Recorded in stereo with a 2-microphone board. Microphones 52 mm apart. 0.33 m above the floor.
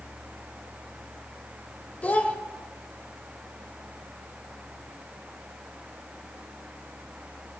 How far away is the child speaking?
About 0.6 m.